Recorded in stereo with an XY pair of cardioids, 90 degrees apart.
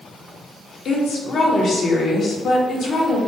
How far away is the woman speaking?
About 1.0 m.